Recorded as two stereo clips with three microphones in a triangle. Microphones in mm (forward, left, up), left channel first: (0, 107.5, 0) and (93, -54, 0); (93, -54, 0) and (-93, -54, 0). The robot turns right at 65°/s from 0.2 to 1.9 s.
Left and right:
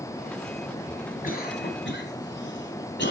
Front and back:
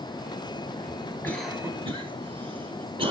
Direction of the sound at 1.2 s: 80° left.